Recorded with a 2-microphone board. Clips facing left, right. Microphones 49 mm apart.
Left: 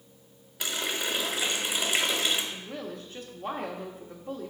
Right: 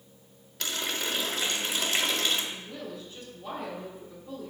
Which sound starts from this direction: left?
A woman speaking, at 2.5 s.